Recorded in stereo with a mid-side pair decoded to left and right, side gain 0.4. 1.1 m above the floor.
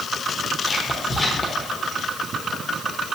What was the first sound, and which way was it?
Whispering, 30° left.